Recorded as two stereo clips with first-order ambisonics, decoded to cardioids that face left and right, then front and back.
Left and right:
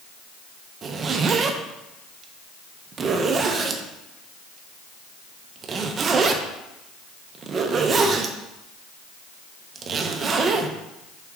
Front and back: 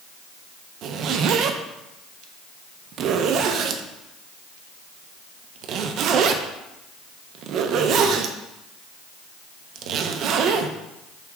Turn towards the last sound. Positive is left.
turn(degrees=-150)